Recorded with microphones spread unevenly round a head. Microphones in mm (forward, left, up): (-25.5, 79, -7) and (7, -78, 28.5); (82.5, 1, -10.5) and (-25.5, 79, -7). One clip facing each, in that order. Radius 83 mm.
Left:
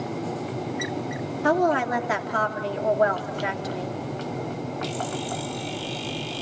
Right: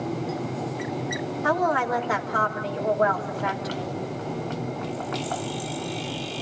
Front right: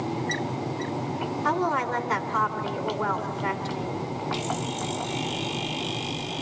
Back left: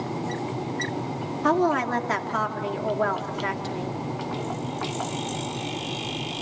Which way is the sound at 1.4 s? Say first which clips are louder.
Left 3 dB, back left 5 dB; 160° left.